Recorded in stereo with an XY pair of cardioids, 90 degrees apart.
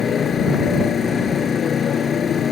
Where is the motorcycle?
60° left.